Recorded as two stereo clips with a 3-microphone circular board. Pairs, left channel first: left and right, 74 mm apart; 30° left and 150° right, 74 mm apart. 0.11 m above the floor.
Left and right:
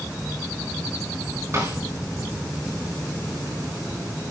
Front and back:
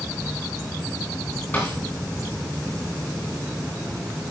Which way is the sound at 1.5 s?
40° right.